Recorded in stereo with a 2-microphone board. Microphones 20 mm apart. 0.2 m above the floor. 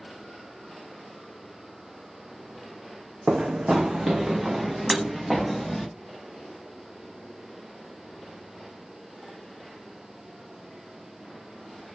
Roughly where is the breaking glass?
Centre.